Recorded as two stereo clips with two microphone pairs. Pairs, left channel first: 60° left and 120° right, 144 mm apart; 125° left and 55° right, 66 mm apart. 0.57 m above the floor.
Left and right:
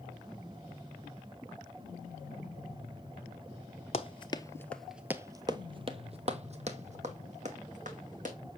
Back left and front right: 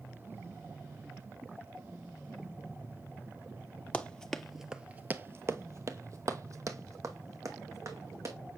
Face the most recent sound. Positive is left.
turn(degrees=-90)